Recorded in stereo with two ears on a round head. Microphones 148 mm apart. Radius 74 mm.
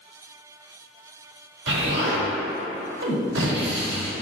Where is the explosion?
80° right, 0.9 m.